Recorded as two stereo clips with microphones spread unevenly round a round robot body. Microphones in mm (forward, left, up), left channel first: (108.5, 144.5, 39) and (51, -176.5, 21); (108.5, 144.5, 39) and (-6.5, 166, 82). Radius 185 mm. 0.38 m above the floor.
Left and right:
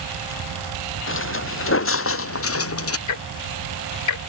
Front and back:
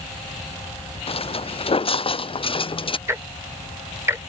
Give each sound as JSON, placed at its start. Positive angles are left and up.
{"t": 1.1, "sound": "footsteps", "azimuth_deg": 25}
{"t": 3.1, "sound": "ticking", "azimuth_deg": 85}